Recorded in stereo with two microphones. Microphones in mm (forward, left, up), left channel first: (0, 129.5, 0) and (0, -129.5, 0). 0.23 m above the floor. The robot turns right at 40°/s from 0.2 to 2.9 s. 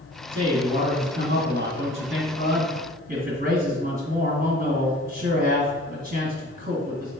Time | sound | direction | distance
0.3 | a man speaking | 155° right | 1.9 m